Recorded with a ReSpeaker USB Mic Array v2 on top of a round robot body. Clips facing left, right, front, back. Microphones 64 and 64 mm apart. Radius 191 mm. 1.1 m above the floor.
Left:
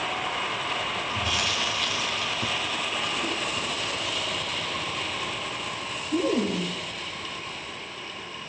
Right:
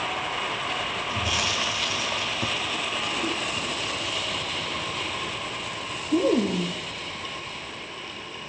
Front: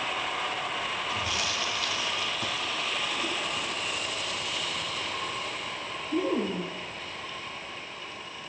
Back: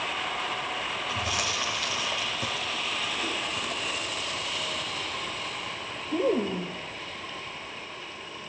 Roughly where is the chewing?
Behind right.